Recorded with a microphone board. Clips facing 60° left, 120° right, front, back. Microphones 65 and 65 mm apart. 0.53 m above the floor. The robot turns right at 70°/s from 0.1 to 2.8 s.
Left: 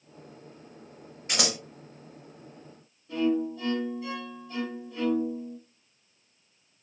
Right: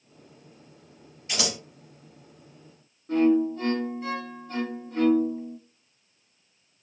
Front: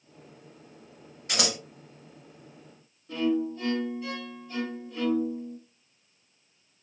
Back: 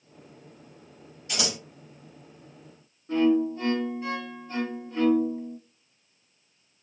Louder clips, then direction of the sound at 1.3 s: Even, front 2 dB; 25° left.